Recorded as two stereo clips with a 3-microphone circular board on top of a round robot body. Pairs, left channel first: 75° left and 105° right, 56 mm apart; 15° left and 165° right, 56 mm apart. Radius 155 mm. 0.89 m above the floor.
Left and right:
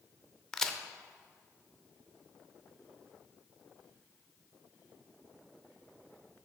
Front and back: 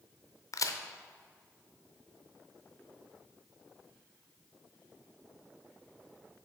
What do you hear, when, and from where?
0.5 s a crack: 5° right, 0.5 m